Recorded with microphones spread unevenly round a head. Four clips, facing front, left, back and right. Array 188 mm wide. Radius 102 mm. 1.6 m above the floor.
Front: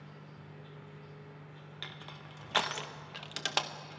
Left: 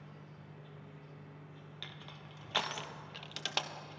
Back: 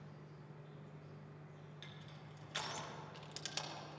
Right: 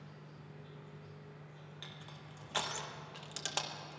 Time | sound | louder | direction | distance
0.0 | an insect | even, front 5 dB | 5° left | 5 m
1.8 | crushing | left 2 dB, front 7 dB | 10° left | 1.5 m